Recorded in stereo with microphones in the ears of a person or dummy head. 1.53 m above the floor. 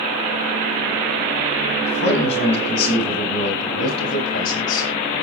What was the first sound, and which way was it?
A man speaking, 55° left (ahead or behind).